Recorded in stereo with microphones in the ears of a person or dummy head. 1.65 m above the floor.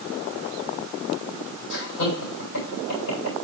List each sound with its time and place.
1.7 s laughter: 75° left (ahead or behind), 7.5 m